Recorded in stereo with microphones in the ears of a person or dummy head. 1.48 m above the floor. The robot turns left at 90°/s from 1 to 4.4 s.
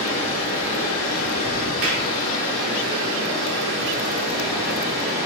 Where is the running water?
140° left, 1.4 m; by 5.3 s 165° right, 1.4 m.